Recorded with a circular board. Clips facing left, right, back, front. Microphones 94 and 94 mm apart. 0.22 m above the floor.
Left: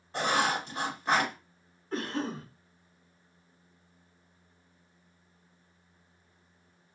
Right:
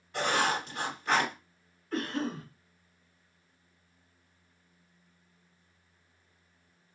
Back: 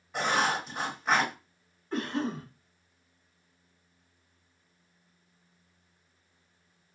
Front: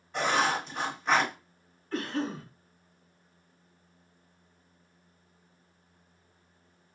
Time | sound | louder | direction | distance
0.1 | writing | left 1 dB, front 1 dB | 100° left | 1.7 m
1.9 | a cough | even, back 1 dB | 125° left | 1.5 m